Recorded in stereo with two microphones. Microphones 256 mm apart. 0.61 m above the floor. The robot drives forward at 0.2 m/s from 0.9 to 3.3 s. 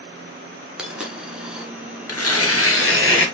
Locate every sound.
0.8 s a dropped coin: 5° right (ahead or behind), 0.6 m
2.1 s tearing paper: 65° left (ahead or behind), 0.6 m; by 3.3 s 50° left (ahead or behind), 0.7 m